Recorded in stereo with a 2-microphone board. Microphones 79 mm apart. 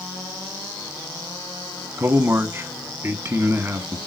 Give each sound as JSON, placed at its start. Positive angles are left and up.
{"t": 2.0, "sound": "a man speaking", "side_deg": -30, "distance_m": 1.2}